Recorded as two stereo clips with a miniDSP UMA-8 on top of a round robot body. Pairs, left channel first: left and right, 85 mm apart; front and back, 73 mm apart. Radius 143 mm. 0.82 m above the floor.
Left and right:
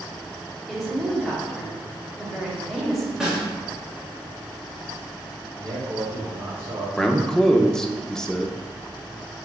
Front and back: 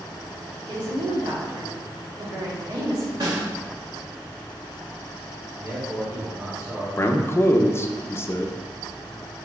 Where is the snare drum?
175° right, 1.8 m.